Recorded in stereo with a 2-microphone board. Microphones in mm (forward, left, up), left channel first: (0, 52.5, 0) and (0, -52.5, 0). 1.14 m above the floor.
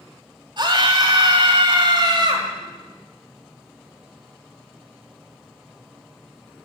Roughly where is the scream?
Right.